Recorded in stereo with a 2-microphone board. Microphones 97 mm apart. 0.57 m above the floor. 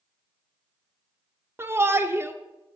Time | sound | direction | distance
1.6 | a shout | 20° right (ahead or behind) | 0.7 m